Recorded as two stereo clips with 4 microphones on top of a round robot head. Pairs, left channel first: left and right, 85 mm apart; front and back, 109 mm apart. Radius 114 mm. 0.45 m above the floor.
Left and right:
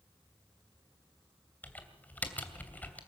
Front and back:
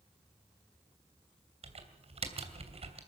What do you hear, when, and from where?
1.6 s typing on a keyboard: 160° left, 2.5 m